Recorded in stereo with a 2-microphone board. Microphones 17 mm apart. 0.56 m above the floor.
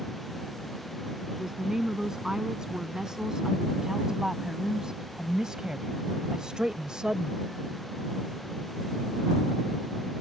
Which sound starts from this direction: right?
A woman speaking, at 1.3 s.